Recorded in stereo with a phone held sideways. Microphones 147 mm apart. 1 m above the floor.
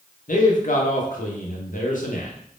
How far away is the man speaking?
About 0.6 m.